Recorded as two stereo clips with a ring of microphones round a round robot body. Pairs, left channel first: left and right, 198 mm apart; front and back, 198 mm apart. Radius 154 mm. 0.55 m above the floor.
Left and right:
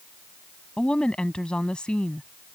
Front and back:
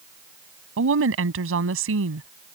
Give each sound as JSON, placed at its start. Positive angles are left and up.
{"t": 0.8, "sound": "a woman speaking", "azimuth_deg": 175}